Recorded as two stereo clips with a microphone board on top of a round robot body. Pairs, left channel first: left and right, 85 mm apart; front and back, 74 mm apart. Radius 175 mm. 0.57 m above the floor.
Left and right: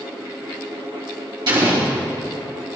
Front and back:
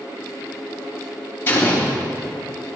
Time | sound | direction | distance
1.5 | an explosion | 60° right | 3 m